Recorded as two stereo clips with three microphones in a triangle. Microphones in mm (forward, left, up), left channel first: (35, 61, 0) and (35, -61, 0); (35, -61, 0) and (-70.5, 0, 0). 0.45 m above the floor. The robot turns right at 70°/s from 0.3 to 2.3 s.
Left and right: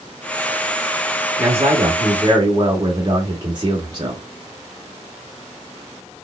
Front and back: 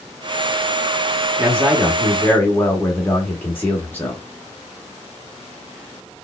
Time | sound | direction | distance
1.4 | a man speaking | 160° right | 0.8 m